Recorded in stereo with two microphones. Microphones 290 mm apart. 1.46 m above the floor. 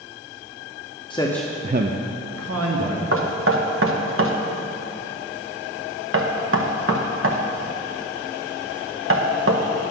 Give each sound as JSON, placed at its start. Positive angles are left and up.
{"t": 1.1, "sound": "a man speaking", "side_deg": 20, "distance_m": 0.8}
{"t": 3.1, "sound": "knocking", "side_deg": -50, "distance_m": 0.9}